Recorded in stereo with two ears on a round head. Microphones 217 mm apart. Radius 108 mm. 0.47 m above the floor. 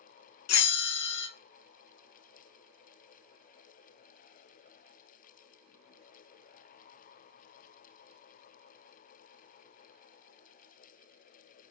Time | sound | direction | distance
0.5 | a bell | 65° left (ahead or behind) | 0.6 m